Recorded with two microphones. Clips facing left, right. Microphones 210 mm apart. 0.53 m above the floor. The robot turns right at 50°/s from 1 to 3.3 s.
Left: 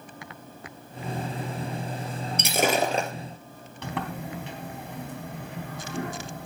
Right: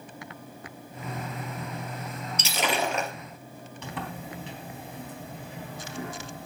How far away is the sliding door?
About 3.5 m.